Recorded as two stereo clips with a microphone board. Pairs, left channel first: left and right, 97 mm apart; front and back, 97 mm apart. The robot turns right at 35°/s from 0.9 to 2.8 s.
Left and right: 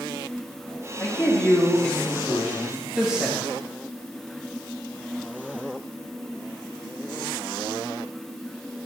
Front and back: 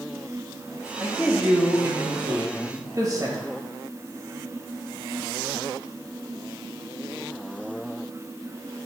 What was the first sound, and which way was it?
A man speaking, 130° left.